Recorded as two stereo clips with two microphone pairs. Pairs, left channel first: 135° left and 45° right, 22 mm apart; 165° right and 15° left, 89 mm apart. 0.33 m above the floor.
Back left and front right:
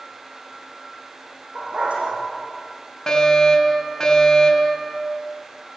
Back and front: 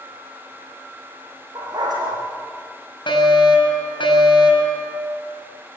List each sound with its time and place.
1.6 s a dog barking: 20° right, 8 m
3.1 s a fire alarm: 160° right, 5.5 m